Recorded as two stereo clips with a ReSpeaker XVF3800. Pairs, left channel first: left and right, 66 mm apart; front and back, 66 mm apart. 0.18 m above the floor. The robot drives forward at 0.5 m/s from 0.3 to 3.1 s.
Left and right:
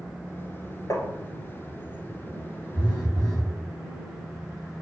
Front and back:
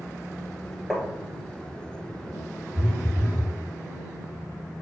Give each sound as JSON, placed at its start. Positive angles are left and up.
{"t": 0.9, "sound": "tapping", "azimuth_deg": 90, "distance_m": 1.4}
{"t": 2.8, "sound": "a phone buzzing", "azimuth_deg": 80, "distance_m": 2.5}